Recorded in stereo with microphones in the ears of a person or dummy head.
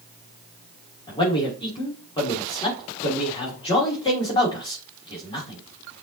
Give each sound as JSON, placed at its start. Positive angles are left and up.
{"t": 1.1, "sound": "a man speaking", "side_deg": 30, "distance_m": 3.0}